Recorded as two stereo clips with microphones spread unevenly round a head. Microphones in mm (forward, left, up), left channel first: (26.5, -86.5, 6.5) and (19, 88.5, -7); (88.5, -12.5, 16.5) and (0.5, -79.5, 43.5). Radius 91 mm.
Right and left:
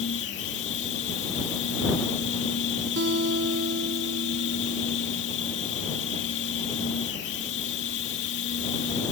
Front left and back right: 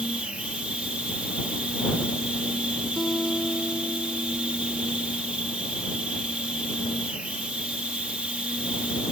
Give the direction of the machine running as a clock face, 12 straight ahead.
2 o'clock.